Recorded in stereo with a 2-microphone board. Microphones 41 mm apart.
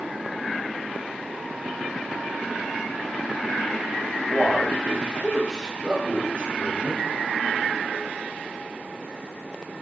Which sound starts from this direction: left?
A man speaking, at 4.1 s.